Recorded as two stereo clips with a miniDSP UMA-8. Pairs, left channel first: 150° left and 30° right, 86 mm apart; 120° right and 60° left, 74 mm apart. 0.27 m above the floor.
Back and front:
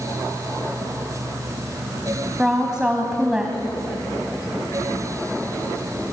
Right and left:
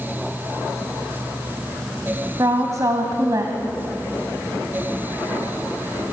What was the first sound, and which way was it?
A woman speaking, 50° left.